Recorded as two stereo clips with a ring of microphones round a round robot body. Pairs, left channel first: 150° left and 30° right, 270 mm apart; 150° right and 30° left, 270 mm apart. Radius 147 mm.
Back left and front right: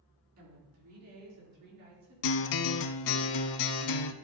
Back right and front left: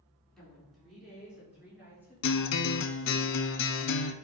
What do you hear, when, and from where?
0.4 s a woman speaking: 60° right, 4 m; by 3.2 s 50° right, 7.5 m
2.2 s a guitar: 165° left, 0.6 m